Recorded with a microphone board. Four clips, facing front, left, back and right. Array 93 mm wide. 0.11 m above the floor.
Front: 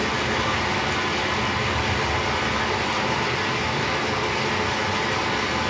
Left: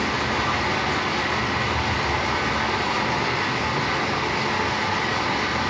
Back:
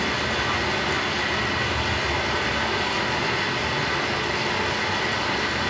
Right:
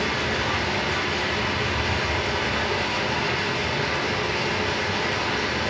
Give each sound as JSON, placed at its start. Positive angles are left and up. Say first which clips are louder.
{"t": 0.0, "sound": "running water", "louder": "left 2 dB, front 1 dB", "azimuth_deg": 70, "distance_m": 1.6}